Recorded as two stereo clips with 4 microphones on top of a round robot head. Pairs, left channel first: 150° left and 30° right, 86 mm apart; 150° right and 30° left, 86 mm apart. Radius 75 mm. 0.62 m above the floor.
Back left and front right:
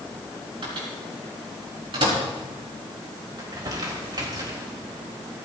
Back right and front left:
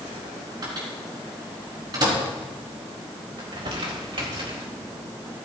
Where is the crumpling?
10° left, 3.5 m.